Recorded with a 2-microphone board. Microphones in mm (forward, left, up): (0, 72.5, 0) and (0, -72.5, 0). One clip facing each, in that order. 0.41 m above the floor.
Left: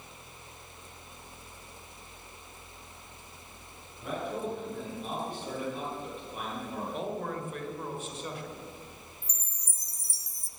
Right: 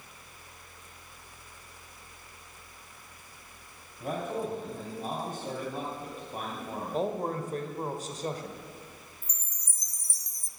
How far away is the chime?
About 0.7 m.